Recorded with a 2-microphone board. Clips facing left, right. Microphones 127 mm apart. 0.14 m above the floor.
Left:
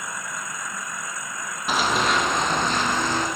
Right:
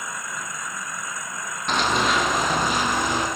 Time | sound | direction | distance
1.7 | running footsteps | 5° left (ahead or behind) | 2 m